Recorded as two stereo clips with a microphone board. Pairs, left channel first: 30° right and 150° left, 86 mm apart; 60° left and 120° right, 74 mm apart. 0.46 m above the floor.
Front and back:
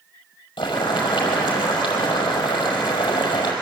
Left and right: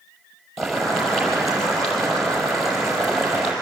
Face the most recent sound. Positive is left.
turn(degrees=-30)